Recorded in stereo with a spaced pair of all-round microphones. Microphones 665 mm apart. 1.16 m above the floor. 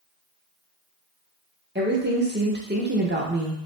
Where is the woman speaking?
15° right (ahead or behind), 0.7 m.